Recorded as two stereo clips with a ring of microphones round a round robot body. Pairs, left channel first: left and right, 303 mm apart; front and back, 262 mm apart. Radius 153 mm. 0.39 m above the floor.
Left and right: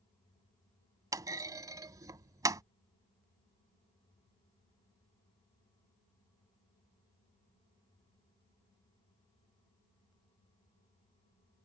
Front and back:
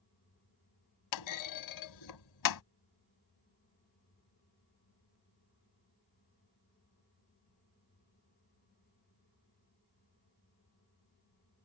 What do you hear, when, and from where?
1.1 s a clunk: 10° right